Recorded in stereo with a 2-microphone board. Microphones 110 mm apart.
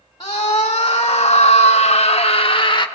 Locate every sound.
0.2 s a scream: 40° left (ahead or behind), 1.6 m